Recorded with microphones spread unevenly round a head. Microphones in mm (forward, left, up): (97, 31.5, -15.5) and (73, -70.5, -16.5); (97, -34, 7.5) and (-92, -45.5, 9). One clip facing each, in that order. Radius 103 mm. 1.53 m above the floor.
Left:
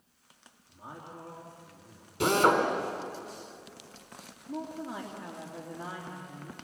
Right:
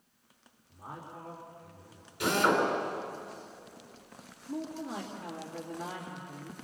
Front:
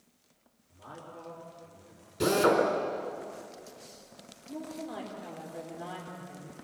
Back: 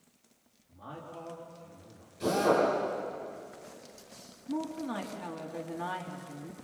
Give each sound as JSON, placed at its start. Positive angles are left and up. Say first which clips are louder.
{"t": 0.7, "sound": "a man speaking", "louder": "right 1 dB, back 2 dB", "azimuth_deg": 135, "distance_m": 3.0}
{"t": 2.2, "sound": "a drill", "louder": "left 3 dB, front 2 dB", "azimuth_deg": 35, "distance_m": 4.0}
{"t": 4.5, "sound": "a woman speaking", "louder": "even, back 5 dB", "azimuth_deg": 150, "distance_m": 2.5}